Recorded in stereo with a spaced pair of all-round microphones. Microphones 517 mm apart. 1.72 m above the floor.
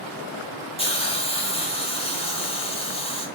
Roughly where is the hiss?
Centre.